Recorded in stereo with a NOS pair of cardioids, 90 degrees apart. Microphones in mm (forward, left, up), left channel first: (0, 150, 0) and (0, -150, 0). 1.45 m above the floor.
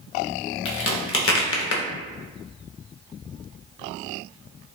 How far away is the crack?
About 0.7 m.